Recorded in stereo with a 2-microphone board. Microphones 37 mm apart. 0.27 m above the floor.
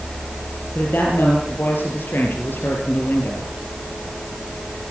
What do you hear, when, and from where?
0.8 s a woman speaking: 60° left (ahead or behind), 6 m; by 3.5 s 80° left, 4.5 m